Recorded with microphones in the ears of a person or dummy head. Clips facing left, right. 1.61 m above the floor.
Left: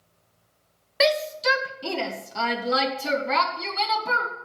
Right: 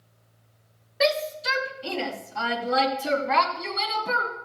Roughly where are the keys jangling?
I don't hear keys jangling.